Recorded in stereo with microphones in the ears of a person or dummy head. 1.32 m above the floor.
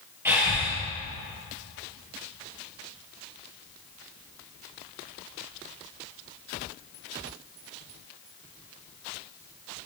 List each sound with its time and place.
0.2 s breathing: 15° right (ahead or behind), 4 m